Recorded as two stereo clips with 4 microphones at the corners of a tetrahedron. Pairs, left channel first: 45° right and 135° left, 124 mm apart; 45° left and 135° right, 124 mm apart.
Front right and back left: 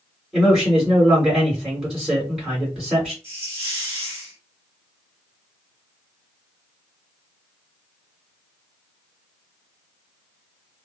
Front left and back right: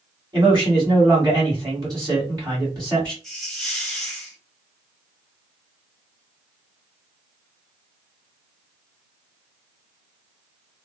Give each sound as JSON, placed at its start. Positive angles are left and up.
{"t": 0.3, "sound": "a man speaking", "azimuth_deg": -135, "distance_m": 1.9}
{"t": 3.2, "sound": "a hiss", "azimuth_deg": 130, "distance_m": 1.1}